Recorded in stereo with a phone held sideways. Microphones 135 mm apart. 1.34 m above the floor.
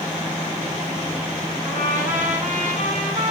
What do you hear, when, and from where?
1.6 s a trumpet: 75° right (ahead or behind), 8.5 m